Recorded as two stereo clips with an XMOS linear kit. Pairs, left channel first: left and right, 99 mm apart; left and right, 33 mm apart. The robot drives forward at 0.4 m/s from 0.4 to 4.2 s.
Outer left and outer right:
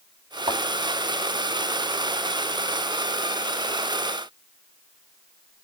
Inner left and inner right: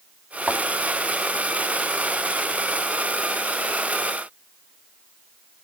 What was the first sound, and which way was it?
A thud, 75° right (ahead or behind).